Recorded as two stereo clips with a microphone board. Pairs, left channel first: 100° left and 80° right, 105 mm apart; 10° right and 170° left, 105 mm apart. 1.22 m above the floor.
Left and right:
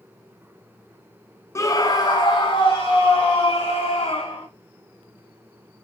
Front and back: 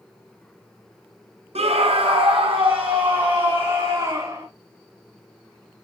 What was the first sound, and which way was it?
A scream, 160° left.